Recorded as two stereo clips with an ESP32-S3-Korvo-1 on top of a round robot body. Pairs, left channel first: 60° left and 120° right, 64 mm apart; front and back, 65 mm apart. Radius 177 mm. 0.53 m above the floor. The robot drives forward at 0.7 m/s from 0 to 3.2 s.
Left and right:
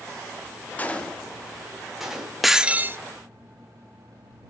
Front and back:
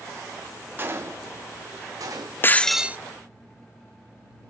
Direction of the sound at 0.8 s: 125° left.